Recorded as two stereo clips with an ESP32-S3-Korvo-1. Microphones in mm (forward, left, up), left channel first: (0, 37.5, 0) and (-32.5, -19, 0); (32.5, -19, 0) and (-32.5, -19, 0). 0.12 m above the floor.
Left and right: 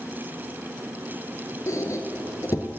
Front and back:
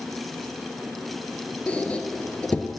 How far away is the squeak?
About 1.0 m.